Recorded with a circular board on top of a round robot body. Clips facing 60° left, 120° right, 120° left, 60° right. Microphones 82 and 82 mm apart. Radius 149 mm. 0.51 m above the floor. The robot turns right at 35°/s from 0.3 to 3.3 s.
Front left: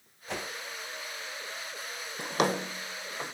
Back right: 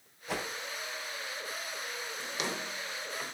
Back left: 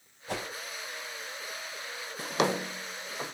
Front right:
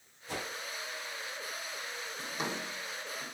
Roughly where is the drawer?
Left.